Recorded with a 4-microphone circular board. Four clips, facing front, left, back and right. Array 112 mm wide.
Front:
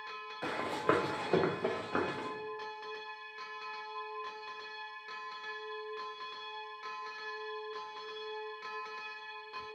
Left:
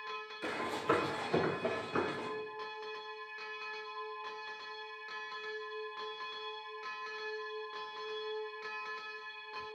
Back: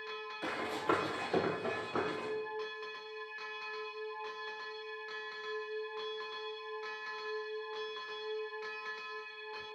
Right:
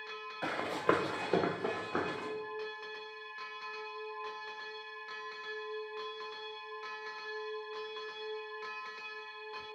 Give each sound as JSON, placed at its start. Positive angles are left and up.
{"t": 0.4, "sound": "running footsteps", "azimuth_deg": -60, "distance_m": 1.2}